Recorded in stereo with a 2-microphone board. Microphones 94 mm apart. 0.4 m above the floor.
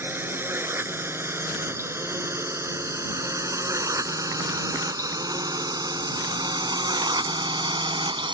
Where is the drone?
25° right (ahead or behind); by 8.3 s 60° right (ahead or behind).